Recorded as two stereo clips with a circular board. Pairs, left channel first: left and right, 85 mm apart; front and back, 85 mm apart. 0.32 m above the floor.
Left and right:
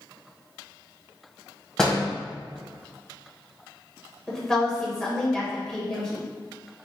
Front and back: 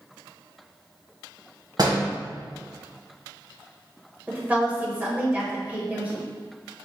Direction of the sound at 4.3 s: 155° left.